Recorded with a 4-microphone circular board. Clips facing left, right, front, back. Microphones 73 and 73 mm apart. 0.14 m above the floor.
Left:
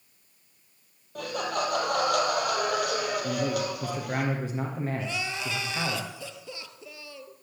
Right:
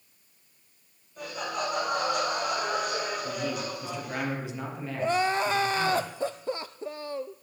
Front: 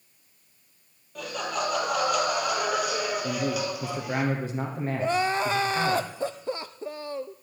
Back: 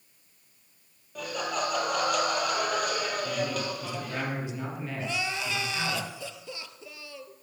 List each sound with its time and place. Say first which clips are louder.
1.1 s laughter: left 3 dB, front 1 dB; 95° left, 4.5 m; by 4.2 s 75° left, 3.5 m
3.2 s a man speaking: left 4 dB, front 3 dB; 45° left, 3 m
5.0 s crying: right 8 dB, front 9 dB; 45° right, 0.5 m